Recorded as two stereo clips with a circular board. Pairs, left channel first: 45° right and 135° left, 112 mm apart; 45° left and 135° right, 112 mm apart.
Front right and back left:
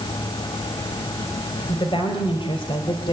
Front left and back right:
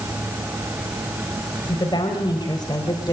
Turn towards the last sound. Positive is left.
turn(degrees=-5)